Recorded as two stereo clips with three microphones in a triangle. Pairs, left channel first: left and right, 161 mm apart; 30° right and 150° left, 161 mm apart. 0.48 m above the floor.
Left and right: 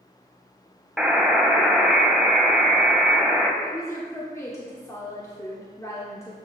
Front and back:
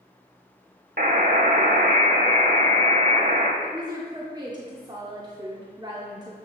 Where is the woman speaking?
135° left, 1.0 m.